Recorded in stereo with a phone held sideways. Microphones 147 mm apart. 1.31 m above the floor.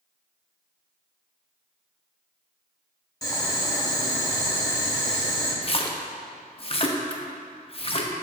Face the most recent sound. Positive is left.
turn(degrees=40)  # may be behind; listen again after turning